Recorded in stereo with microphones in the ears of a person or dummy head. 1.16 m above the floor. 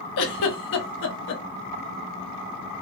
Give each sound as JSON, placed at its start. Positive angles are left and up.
{"t": 0.2, "sound": "a giggle", "side_deg": 60, "distance_m": 0.5}